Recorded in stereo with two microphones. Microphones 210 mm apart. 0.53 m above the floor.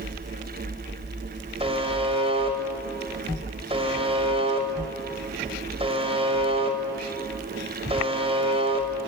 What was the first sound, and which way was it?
A buzzer, 30° right (ahead or behind).